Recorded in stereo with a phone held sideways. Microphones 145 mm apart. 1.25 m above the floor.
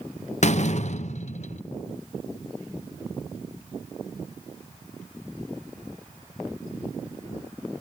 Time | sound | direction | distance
0.4 | a door slam | 55° left (ahead or behind) | 0.7 m